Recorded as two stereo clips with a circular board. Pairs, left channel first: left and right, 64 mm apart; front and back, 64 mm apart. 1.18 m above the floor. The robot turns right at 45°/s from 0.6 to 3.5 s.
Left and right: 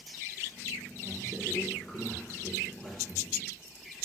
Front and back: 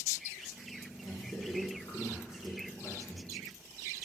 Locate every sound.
1.0 s a man speaking: 15° right, 1.0 m; by 3.3 s 90° left, 1.0 m